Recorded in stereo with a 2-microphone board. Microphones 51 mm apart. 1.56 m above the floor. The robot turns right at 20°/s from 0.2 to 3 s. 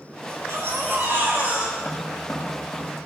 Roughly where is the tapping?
Centre.